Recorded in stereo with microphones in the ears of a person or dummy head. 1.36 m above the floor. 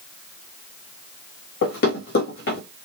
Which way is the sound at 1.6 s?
60° left (ahead or behind).